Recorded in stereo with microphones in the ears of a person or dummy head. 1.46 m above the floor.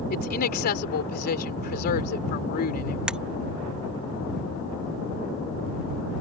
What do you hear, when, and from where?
0.1 s a woman speaking: 50° left (ahead or behind)
3.1 s breaking glass: 5° right (ahead or behind)